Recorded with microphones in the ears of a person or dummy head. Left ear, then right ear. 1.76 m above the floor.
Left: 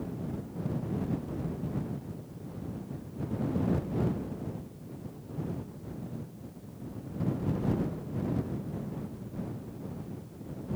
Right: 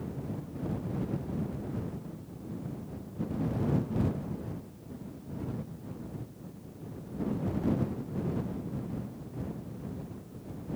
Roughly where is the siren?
No siren in this recording.